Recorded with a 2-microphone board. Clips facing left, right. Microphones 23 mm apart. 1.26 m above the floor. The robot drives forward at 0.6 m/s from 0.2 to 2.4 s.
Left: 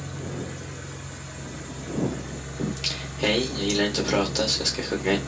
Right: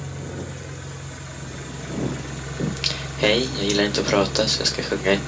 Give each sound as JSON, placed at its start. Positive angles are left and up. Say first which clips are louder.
{"t": 0.0, "sound": "an engine running", "louder": "right 1 dB", "side_deg": -15, "distance_m": 1.4}
{"t": 2.6, "sound": "singing", "louder": "right 3 dB", "side_deg": -35, "distance_m": 0.6}